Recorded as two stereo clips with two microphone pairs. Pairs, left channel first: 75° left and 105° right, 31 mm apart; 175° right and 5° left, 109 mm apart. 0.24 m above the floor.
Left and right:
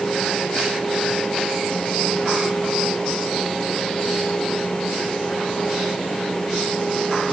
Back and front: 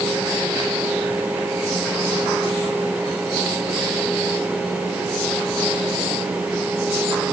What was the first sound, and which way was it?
Only background noise.